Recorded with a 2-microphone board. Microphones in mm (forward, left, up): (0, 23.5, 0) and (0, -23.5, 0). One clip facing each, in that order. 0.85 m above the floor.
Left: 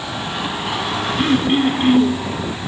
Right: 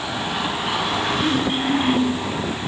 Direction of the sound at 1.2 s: 55° left (ahead or behind).